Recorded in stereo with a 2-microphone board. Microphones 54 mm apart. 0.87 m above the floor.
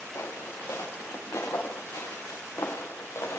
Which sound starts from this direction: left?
Footsteps, at 0.1 s.